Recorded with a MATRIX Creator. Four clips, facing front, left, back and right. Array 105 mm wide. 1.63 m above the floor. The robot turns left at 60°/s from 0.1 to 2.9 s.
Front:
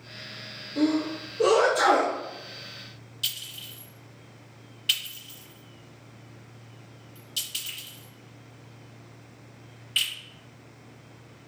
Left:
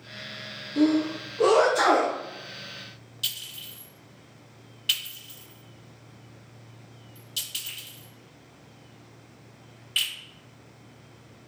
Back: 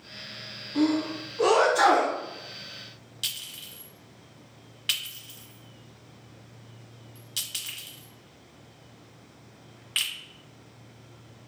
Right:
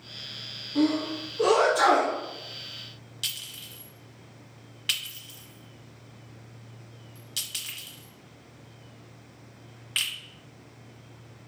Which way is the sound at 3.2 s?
130° right.